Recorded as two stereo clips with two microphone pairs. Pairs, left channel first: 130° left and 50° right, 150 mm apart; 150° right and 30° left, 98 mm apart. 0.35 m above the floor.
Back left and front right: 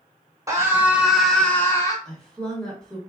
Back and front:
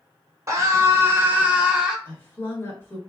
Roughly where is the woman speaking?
Behind.